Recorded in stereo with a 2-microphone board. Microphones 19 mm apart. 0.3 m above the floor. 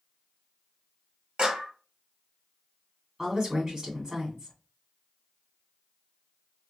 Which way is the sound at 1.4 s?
45° right (ahead or behind).